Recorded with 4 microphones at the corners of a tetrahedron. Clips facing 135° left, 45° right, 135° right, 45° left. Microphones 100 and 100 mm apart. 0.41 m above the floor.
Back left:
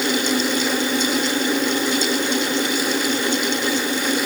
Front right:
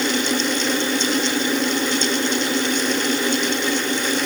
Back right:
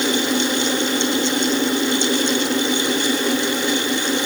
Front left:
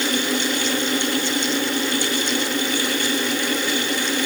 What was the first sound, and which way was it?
Only background noise.